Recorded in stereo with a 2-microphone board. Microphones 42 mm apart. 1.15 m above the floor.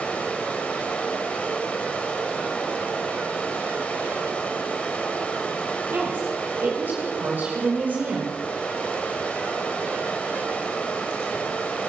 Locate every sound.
0.0 s running water: 30° left (ahead or behind), 3 m
5.9 s a woman speaking: 50° right (ahead or behind), 5 m